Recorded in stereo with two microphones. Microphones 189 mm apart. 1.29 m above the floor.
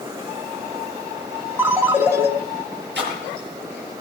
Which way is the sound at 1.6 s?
15° right (ahead or behind).